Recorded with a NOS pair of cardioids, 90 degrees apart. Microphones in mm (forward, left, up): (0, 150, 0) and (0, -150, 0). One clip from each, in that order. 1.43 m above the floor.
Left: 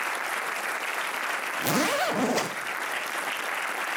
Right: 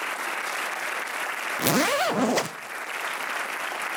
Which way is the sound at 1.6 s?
35° right.